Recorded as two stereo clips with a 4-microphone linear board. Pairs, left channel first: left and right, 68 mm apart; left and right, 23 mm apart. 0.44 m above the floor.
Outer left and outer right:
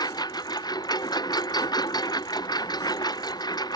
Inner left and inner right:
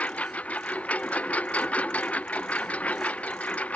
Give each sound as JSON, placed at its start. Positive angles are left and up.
{"t": 0.0, "sound": "a lawn mower", "side_deg": 85}